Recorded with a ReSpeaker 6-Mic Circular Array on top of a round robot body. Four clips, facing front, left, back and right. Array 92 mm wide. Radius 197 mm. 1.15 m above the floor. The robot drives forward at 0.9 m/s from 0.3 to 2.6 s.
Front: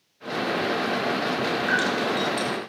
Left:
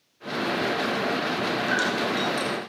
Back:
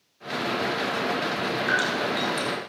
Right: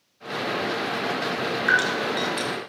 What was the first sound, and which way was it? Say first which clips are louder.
Dripping: right 2 dB, even; 90° right.